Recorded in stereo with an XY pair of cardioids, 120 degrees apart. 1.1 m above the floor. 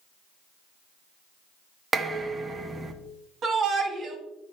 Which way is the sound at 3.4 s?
50° right.